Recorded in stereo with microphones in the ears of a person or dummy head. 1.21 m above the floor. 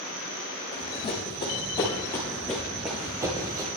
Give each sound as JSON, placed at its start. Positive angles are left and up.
{"t": 0.7, "sound": "running footsteps", "side_deg": 30, "distance_m": 2.5}